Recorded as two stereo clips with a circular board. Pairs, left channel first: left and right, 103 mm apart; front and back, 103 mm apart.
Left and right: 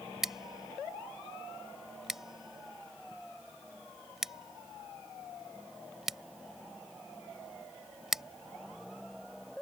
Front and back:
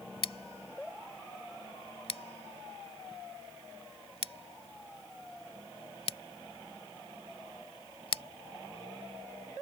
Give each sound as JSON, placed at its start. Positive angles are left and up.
{"t": 0.2, "sound": "scissors", "azimuth_deg": -5}